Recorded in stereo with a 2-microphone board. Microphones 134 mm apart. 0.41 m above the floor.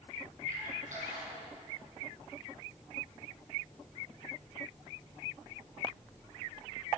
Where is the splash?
75° right (ahead or behind), 4 m.